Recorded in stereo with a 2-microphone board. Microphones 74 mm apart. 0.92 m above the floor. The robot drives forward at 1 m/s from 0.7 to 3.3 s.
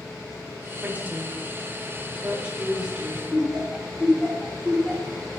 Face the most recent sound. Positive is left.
turn(degrees=5)  # may be behind; listen again after turning